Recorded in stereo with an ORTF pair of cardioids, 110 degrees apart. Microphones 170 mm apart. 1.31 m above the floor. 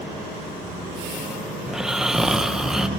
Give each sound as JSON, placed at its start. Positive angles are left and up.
{"t": 1.7, "sound": "snoring", "azimuth_deg": -5, "distance_m": 1.0}